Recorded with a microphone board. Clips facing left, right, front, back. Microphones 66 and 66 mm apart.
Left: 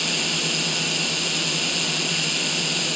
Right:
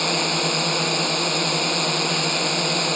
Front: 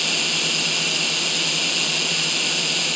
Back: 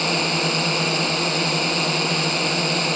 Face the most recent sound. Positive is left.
turn(degrees=-130)